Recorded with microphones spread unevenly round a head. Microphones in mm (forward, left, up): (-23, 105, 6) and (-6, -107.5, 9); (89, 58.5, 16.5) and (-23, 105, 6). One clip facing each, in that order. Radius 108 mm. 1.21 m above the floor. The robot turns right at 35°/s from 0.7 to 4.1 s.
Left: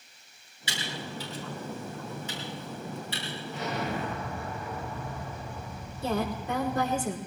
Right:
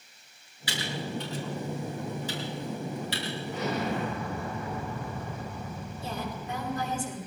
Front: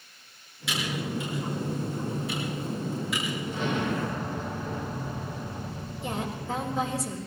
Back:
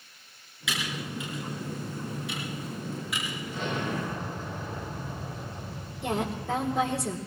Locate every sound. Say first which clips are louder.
0.7 s typing on a keyboard: right 4 dB, front 4 dB; 160° left, 5.5 m; by 3.4 s 105° right, 5.5 m
3.5 s an explosion: right 2 dB, front 2 dB; 110° right, 4.5 m; by 7.0 s 90° right, 4.5 m
6.0 s a woman speaking: left 7 dB, back 3 dB; 130° left, 3.5 m